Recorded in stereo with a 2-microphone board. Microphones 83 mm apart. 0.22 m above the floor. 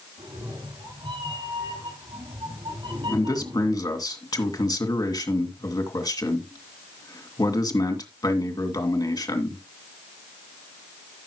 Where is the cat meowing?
85° right, 8 m; by 3.9 s 80° right, 6 m.